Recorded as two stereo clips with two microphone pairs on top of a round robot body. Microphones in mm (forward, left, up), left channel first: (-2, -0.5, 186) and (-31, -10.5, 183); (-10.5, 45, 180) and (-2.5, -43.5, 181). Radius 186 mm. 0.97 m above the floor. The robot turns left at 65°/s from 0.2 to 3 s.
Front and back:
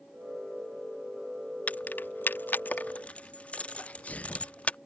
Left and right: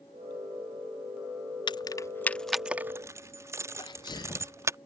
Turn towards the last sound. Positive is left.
turn(degrees=60)